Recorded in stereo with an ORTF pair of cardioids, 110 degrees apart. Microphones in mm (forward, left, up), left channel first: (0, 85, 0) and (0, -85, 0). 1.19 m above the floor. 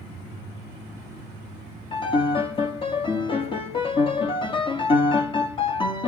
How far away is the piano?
About 1.5 m.